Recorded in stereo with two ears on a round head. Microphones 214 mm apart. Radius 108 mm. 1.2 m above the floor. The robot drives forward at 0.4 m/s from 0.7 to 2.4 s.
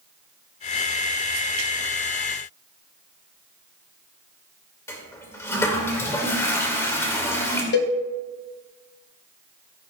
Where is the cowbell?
50° left (ahead or behind), 0.9 m.